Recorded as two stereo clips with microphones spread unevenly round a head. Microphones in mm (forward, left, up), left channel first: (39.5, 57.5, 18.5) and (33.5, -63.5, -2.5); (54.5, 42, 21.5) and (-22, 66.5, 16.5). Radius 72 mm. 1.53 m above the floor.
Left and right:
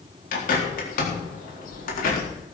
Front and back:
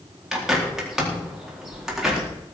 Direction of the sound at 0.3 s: 75° left.